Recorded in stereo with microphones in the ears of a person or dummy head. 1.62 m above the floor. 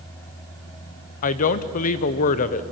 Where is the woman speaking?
45° left (ahead or behind), 0.8 m.